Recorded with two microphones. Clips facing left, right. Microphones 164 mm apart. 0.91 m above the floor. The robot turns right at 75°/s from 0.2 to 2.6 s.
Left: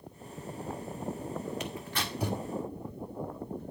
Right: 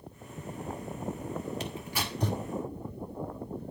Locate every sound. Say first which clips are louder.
1.6 s tearing paper: right 1 dB; 35° right (ahead or behind), 1.8 m; by 2.4 s 25° left (ahead or behind), 1.8 m